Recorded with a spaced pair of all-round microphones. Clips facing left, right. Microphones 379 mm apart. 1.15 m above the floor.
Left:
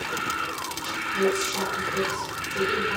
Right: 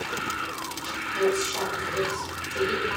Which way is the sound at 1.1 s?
35° left (ahead or behind).